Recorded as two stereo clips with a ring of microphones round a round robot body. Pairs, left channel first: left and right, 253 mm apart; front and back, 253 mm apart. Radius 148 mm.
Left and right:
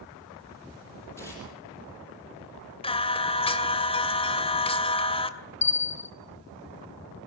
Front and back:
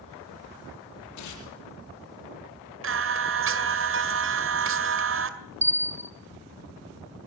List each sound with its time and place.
1.2 s tearing paper: 10° left, 6.5 m
2.8 s singing: 155° left, 2 m
5.6 s a bell: 120° left, 1.4 m